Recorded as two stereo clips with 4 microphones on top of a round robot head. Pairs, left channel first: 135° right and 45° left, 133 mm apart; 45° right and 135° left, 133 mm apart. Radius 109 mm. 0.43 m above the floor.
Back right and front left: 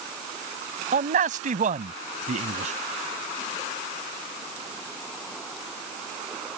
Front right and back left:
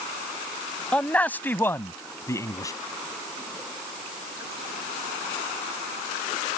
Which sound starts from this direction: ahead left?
A man speaking, at 0.9 s.